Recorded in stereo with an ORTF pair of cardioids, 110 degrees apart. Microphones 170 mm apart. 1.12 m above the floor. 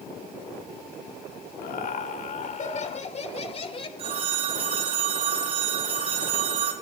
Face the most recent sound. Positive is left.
turn(degrees=-35)